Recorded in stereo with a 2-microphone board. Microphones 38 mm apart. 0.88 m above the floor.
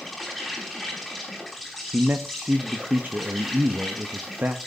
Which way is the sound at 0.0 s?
Centre (ahead or behind).